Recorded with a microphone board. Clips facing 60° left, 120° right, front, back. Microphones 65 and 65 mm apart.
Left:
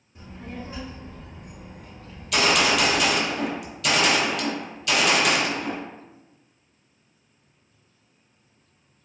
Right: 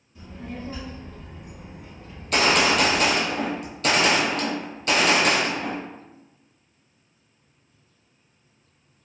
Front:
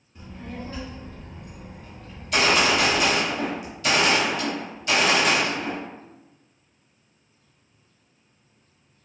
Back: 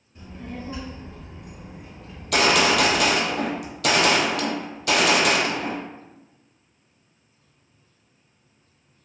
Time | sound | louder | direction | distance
0.1 | a child speaking | right 1 dB, back 1 dB | 100° left | 1.1 m
2.1 | a gunshot | right 1 dB, back 1 dB | 165° right | 0.6 m